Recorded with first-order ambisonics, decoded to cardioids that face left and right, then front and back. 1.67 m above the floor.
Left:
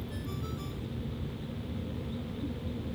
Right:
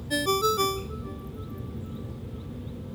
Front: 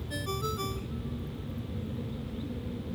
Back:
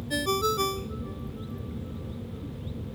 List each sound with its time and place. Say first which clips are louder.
0.1 s a ringtone: right 23 dB, back 9 dB; 115° right